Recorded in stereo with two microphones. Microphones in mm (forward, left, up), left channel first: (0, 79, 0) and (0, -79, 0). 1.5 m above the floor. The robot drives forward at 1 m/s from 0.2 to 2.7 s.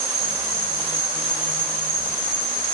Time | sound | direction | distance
0.0 | an insect | 80° right | 4.5 m